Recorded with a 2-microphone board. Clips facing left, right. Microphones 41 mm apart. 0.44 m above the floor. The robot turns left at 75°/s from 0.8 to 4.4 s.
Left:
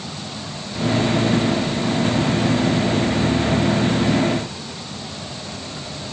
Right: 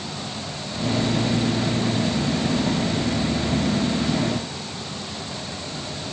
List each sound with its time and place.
Only background noise.